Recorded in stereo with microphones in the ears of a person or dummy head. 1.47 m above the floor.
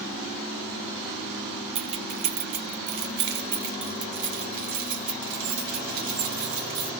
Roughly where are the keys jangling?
Right.